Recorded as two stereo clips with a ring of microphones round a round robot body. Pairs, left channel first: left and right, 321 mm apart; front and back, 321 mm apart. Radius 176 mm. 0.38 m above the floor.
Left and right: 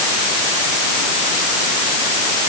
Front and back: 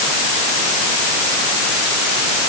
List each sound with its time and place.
Only background noise.